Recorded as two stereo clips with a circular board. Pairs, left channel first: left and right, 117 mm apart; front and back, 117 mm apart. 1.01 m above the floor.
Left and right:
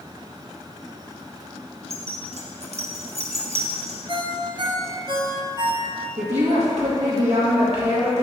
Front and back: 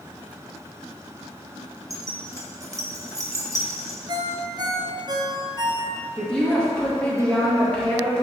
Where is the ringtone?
130° right, 0.7 m.